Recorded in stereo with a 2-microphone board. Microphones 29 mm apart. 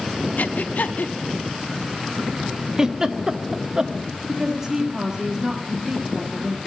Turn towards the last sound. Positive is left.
turn(degrees=-20)  # may be behind; listen again after turning